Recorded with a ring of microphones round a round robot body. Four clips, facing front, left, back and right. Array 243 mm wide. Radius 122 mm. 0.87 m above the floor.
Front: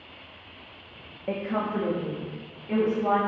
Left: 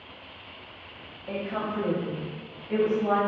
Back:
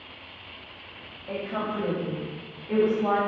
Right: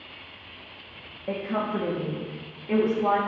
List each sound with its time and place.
1.3 s a woman speaking: 35° right, 1.5 m; by 3.2 s 90° right, 3.5 m